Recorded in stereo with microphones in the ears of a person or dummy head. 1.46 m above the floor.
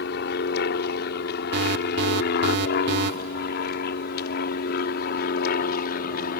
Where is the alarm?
65° right (ahead or behind).